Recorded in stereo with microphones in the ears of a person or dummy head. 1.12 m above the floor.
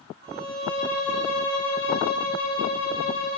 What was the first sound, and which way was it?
A violin, 70° right (ahead or behind).